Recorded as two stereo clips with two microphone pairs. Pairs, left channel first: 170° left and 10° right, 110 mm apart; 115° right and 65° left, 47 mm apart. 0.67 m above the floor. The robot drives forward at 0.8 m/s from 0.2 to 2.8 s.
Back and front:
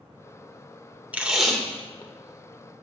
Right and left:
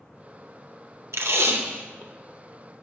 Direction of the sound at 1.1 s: 65° left.